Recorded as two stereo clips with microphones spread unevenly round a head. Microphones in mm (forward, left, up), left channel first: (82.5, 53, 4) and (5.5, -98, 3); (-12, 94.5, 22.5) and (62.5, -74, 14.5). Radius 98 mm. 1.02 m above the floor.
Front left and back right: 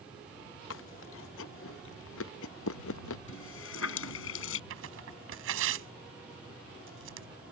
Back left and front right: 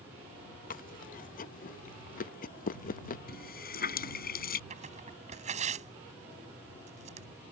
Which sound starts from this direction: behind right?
Tearing paper, at 4.7 s.